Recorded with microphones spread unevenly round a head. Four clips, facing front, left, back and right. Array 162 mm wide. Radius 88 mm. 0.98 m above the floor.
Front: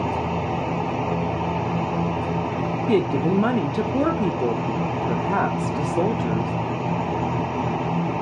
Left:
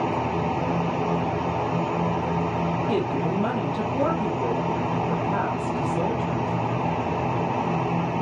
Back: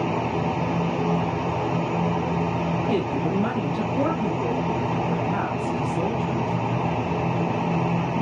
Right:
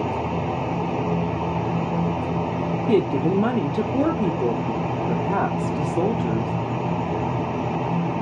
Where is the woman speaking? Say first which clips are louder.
Right 9 dB, front 7 dB; 35° right, 0.8 m.